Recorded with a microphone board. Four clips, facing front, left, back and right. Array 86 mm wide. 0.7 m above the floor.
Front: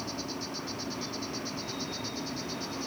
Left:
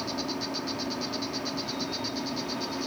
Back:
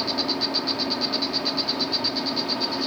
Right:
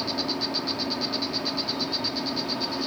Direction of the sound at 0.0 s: 165° right.